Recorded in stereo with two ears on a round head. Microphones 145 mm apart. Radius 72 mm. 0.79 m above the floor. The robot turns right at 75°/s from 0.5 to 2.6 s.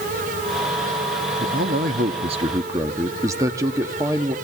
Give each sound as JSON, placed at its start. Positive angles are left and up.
{"t": 1.4, "sound": "a man speaking", "azimuth_deg": -115, "distance_m": 1.3}